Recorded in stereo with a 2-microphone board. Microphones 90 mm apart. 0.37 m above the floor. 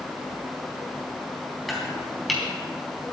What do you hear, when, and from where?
1.7 s chopping: centre (ahead or behind), 3.5 m